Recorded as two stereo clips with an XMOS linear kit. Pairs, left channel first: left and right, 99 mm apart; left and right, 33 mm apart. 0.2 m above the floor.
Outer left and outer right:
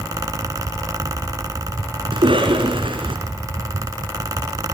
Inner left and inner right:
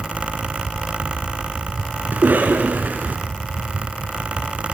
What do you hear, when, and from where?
2.1 s a cough: 60° right (ahead or behind), 2.5 m